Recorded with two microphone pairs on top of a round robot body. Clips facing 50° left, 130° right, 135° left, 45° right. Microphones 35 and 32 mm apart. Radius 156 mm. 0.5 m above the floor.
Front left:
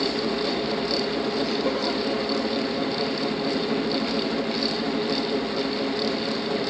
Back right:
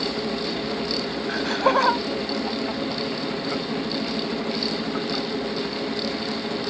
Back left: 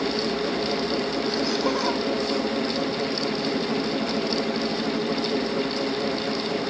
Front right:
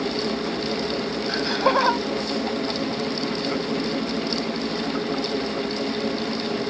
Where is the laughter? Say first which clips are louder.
Back right 4 dB, front right 7 dB; 100° right.